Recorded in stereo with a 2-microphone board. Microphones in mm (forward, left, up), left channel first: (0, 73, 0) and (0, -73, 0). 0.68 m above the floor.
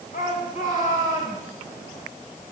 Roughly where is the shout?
Left.